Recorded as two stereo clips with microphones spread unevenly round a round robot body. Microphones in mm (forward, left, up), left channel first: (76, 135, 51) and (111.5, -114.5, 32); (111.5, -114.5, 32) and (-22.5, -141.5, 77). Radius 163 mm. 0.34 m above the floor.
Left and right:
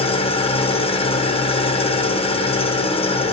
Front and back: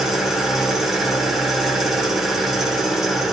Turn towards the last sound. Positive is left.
turn(degrees=55)